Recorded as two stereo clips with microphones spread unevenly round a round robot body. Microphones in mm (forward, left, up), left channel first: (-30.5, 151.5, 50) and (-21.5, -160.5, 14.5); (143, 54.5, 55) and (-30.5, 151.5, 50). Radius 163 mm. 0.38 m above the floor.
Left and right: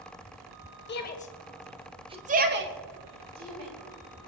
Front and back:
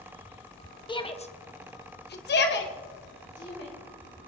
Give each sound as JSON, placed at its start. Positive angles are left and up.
{"t": 0.9, "sound": "a shout", "azimuth_deg": 35, "distance_m": 2.0}